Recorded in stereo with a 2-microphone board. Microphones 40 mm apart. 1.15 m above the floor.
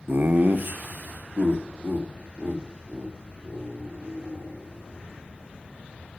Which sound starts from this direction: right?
Laughter, at 0.1 s.